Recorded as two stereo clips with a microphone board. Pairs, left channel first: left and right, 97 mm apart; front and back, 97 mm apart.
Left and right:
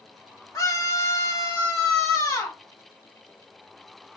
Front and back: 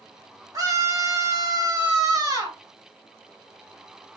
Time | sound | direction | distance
0.5 | a scream | 135° left | 1.9 m